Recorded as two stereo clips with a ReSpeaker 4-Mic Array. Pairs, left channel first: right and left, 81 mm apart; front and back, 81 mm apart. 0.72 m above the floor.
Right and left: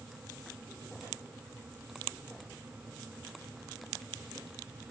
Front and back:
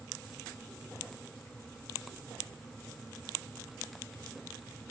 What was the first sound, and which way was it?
Only background noise.